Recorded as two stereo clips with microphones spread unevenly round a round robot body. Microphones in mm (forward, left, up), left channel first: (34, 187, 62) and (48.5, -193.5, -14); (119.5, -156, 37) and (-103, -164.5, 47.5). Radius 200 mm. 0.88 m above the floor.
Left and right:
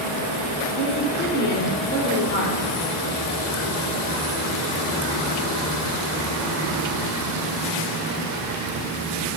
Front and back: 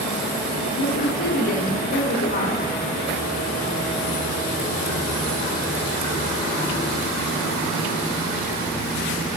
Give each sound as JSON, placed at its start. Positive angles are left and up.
{"t": 0.8, "sound": "a woman speaking", "azimuth_deg": 25, "distance_m": 2.5}